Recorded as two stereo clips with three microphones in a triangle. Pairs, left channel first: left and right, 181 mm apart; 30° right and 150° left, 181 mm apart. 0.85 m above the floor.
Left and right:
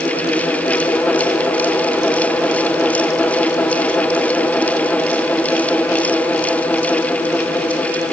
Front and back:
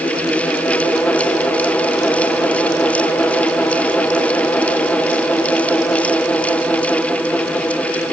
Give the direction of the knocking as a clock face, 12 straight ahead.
I don't hear knocking.